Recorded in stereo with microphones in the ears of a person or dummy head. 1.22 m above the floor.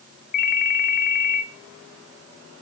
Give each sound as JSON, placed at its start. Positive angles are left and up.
{"t": 0.3, "sound": "a ringtone", "side_deg": 45, "distance_m": 0.6}